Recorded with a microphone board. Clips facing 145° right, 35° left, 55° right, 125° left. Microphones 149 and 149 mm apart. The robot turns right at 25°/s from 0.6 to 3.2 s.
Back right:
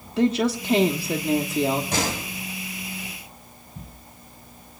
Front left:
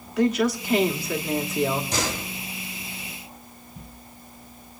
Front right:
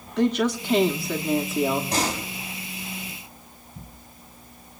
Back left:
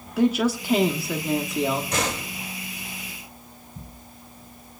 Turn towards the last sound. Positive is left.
turn(degrees=-80)